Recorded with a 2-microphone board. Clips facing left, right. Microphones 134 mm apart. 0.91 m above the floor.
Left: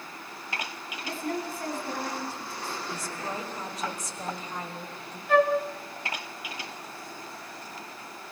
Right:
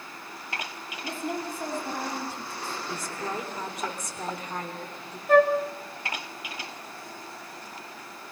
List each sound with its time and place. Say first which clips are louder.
1.0 s a woman speaking: even; 20° right (ahead or behind), 8 m
2.9 s a woman speaking: right 2 dB; 60° right (ahead or behind), 3.5 m
5.3 s a flute: right 3 dB; 45° right (ahead or behind), 1.7 m